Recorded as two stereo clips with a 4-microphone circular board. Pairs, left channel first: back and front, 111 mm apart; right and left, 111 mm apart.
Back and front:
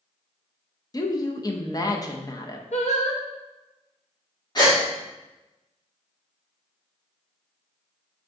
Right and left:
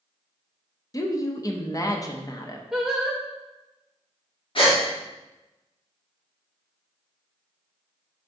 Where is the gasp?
130° right, 1.3 m.